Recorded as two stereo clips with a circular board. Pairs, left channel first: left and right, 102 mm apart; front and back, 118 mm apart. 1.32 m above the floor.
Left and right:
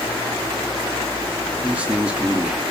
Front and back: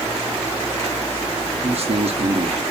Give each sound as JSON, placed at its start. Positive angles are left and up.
{"t": 1.6, "sound": "a man speaking", "azimuth_deg": -165, "distance_m": 1.0}